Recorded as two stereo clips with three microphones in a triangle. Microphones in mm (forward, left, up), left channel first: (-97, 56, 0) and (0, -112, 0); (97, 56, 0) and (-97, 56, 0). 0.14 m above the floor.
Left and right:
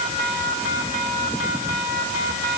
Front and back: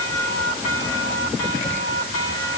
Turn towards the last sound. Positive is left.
No sound to turn to.